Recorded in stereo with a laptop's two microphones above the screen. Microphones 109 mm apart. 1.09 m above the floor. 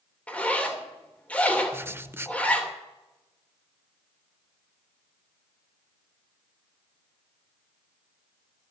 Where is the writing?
20° right (ahead or behind), 0.5 m.